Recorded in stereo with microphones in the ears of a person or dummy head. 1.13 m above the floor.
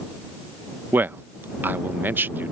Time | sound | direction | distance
0.9 | a man speaking | 10° right (ahead or behind) | ?